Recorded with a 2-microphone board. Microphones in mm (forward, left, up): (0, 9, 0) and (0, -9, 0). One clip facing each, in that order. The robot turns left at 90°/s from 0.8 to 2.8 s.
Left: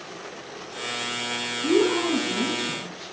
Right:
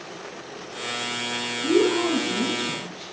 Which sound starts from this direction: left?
A woman speaking, at 1.6 s.